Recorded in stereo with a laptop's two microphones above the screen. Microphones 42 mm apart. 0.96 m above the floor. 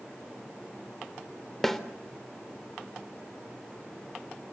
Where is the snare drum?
5° left (ahead or behind), 3 m.